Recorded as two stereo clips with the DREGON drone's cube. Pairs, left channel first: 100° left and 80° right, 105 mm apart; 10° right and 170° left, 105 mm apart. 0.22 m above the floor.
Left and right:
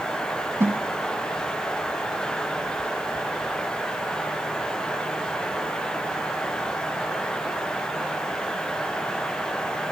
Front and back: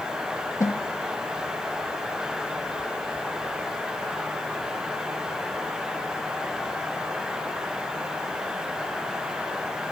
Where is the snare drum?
40° right, 0.8 m.